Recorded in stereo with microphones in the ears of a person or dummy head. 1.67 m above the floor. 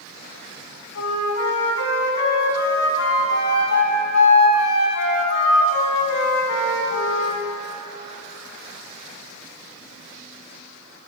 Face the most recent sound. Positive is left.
turn(degrees=70)  # may be behind; listen again after turning